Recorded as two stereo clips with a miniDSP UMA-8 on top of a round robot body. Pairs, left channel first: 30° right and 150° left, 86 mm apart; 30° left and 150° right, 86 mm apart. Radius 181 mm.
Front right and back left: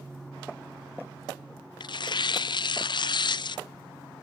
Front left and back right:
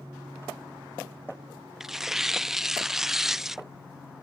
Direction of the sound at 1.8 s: 65° right.